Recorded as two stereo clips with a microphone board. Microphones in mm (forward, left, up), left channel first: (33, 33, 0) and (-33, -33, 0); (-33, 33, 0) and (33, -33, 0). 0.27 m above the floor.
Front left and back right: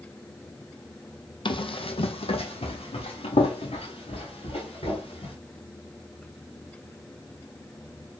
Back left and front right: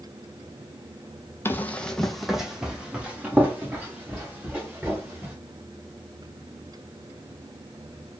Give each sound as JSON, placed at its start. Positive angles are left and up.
{"t": 1.4, "sound": "running footsteps", "azimuth_deg": 70, "distance_m": 0.6}